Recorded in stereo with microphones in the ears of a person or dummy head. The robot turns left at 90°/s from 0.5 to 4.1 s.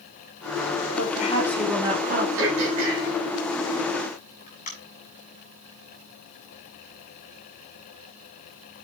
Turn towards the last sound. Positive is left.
turn(degrees=40)  # may be behind; listen again after turning